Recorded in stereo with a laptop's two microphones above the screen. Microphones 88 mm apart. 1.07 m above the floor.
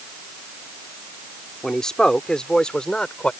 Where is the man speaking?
5° left (ahead or behind); by 3.3 s 10° left (ahead or behind).